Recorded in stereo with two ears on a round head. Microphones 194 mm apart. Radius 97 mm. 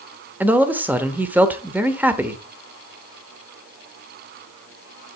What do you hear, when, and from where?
0.4 s a man speaking: 10° right (ahead or behind), 0.8 m